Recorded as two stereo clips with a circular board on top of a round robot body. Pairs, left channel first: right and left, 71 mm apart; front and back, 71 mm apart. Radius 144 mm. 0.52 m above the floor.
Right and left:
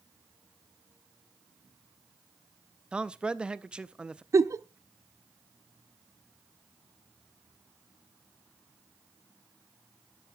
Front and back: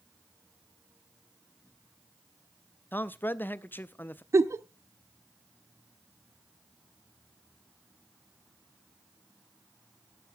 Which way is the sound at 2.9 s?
25° left.